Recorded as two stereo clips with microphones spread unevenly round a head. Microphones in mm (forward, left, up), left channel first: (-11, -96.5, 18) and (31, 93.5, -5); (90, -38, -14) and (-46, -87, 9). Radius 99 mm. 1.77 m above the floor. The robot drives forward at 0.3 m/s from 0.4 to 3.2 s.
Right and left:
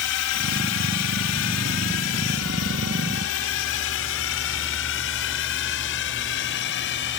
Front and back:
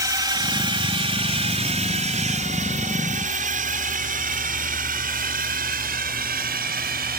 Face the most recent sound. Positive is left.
turn(degrees=-140)